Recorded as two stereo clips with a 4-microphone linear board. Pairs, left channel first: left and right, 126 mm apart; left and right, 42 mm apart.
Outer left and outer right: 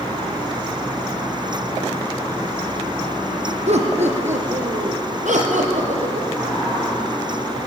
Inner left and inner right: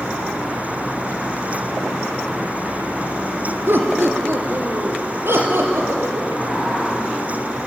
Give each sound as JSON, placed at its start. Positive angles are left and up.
{"t": 3.7, "sound": "laughter", "side_deg": -60, "distance_m": 3.0}
{"t": 6.4, "sound": "a sliding door", "side_deg": 0, "distance_m": 8.0}